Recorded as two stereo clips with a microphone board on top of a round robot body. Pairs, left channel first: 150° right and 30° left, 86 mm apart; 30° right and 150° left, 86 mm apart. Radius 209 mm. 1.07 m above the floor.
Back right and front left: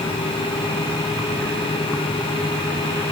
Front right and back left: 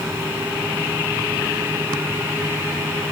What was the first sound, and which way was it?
Only background noise.